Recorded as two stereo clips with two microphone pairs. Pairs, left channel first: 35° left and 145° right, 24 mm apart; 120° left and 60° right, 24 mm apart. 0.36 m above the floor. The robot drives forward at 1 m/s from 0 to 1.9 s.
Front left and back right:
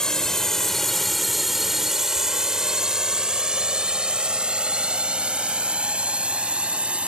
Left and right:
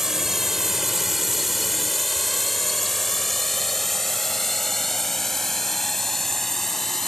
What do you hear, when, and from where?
0.0 s a drone: 5° left; by 7.1 s 160° right